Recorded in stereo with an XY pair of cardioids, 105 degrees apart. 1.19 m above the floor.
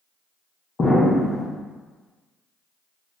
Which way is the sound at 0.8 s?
40° left.